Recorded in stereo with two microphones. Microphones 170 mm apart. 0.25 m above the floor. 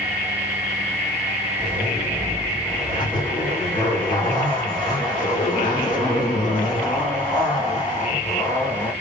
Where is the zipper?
25° left (ahead or behind), 1.8 m.